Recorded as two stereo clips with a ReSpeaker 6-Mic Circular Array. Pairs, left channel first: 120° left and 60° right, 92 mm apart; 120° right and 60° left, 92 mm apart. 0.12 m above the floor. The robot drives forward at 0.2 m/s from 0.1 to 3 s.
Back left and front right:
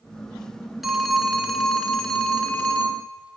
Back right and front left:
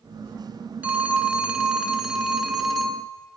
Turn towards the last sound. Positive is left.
turn(degrees=155)